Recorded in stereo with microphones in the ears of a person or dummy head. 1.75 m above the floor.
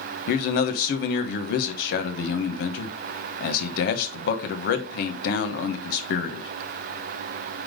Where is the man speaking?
55° left (ahead or behind), 1.2 m.